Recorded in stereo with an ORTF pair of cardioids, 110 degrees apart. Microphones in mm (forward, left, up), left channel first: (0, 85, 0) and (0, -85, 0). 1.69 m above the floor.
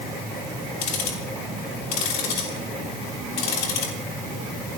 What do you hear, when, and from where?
0.8 s ticking: 70° left, 3.5 m